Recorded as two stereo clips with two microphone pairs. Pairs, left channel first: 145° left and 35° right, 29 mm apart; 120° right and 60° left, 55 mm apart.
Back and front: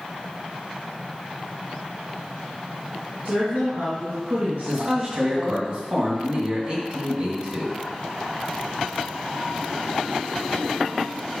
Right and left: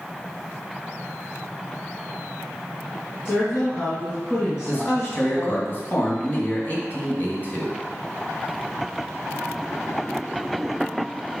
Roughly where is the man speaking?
Right.